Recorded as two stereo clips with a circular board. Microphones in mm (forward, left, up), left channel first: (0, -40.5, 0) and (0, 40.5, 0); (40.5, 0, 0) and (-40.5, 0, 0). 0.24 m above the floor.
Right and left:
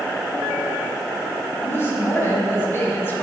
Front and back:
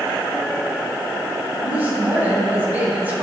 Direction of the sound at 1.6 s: 125° right.